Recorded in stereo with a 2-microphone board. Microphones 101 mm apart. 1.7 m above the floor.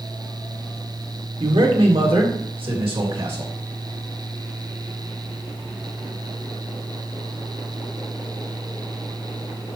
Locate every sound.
1.4 s a man speaking: 65° right (ahead or behind), 1.8 m; by 3.5 s 60° right (ahead or behind), 3 m